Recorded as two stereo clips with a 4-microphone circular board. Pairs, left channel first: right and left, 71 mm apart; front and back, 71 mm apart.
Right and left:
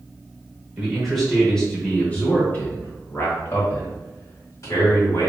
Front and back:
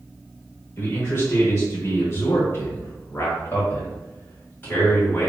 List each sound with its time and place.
0.8 s a man speaking: 10° left, 1.4 m; by 5.3 s 60° right, 2.5 m